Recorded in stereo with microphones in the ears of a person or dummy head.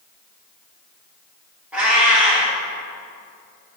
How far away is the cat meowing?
About 1.4 m.